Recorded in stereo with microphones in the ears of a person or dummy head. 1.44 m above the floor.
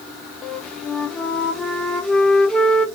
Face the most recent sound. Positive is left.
turn(degrees=10)  # may be behind; listen again after turning